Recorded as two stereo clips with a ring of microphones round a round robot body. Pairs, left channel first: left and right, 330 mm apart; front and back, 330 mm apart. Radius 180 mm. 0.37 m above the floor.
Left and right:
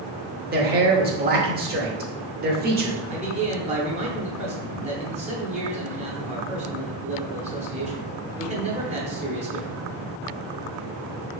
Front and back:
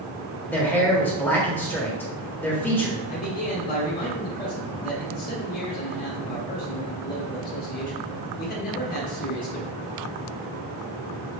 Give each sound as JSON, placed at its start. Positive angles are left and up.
{"t": 0.5, "sound": "a man speaking", "azimuth_deg": -80, "distance_m": 0.8}
{"t": 3.1, "sound": "a man speaking", "azimuth_deg": -35, "distance_m": 0.9}